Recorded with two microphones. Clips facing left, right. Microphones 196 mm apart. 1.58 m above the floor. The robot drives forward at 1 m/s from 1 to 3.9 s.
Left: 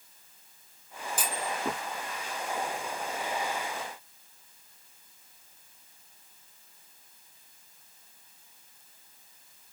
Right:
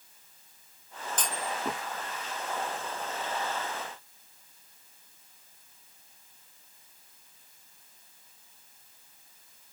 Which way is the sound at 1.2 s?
10° left (ahead or behind).